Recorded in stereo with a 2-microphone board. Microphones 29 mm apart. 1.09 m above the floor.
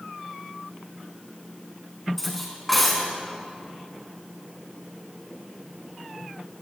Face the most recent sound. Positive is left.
turn(degrees=5)  # may be behind; listen again after turning